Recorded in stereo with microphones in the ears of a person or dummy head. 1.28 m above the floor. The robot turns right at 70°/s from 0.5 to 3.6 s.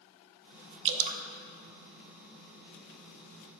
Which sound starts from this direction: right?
Dripping, at 0.8 s.